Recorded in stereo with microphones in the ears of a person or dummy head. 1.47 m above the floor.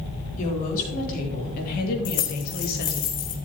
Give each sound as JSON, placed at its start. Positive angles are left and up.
{"t": 0.4, "sound": "a woman speaking", "side_deg": 45, "distance_m": 3.5}
{"t": 2.0, "sound": "keys jangling", "side_deg": 45, "distance_m": 1.8}